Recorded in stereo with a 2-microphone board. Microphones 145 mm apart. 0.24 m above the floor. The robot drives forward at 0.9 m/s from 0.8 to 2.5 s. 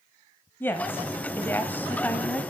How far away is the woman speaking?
About 1.0 m.